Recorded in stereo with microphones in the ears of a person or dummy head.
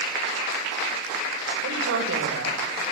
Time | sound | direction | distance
1.6 | a woman speaking | 80° right | 7.5 m